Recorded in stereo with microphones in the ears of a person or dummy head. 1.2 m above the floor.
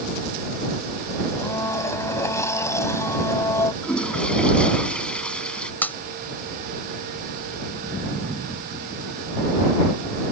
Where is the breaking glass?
10° left (ahead or behind).